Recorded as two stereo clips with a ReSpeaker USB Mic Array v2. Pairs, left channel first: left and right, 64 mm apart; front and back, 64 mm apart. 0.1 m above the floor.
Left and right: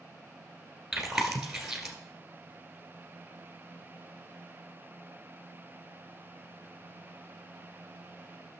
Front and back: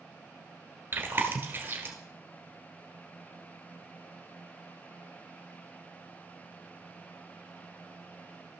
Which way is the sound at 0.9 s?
170° right.